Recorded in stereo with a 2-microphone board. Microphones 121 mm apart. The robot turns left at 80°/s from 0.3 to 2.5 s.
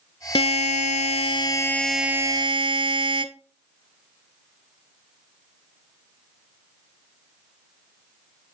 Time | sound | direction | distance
0.3 | a buzzer | 125° left | 0.7 m